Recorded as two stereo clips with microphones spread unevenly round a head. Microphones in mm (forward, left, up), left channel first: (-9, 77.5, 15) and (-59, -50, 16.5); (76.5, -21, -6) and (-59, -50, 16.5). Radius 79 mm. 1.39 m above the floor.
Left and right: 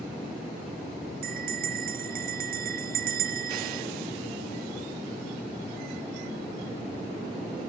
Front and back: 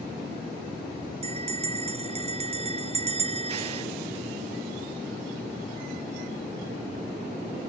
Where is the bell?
125° right.